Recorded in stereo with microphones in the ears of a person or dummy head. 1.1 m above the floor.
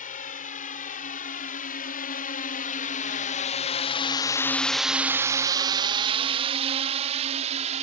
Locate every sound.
0.0 s a drone: 40° left (ahead or behind); by 7.8 s 35° right (ahead or behind)